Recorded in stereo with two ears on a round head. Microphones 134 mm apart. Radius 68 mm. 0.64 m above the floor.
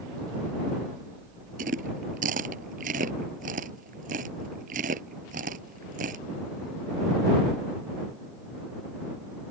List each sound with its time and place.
1.6 s chewing: 55° right (ahead or behind)